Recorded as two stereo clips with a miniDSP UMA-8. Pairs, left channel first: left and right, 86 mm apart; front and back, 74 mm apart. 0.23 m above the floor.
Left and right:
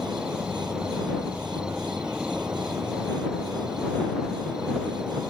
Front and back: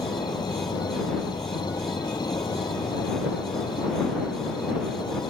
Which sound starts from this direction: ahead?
An insect, at 0.0 s.